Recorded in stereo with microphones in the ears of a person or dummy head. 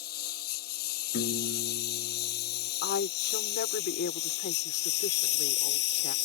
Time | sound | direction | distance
0.0 | a lawn mower | 55° left (ahead or behind) | ?
1.1 | a piano | 60° left (ahead or behind) | ?
2.8 | a woman speaking | 55° left (ahead or behind) | ?